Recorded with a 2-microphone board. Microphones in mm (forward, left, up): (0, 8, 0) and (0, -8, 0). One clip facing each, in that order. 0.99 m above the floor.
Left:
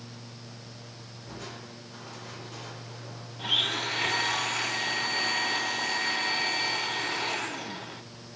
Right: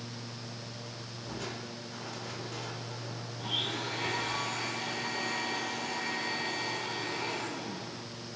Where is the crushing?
10° right (ahead or behind), 3 m.